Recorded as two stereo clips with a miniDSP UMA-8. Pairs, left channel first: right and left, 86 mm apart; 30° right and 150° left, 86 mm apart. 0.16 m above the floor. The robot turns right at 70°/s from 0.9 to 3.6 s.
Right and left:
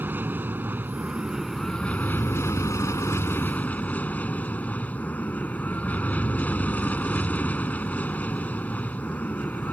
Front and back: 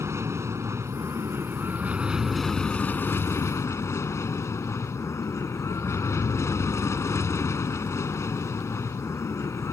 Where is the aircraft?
135° left; by 9.7 s 35° right.